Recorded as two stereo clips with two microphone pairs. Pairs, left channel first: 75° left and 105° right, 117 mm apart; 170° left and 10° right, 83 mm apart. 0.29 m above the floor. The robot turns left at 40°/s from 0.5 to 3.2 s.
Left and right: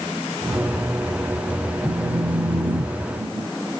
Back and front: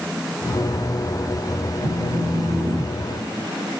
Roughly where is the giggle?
I don't hear a giggle.